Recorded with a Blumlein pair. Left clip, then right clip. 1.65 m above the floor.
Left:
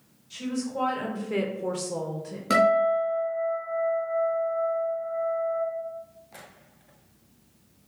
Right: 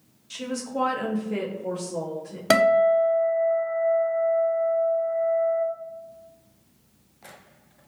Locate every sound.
0.3 s a woman speaking: 35° right, 1.0 m; by 2.4 s 75° left, 0.9 m
2.5 s a guitar: 45° right, 1.0 m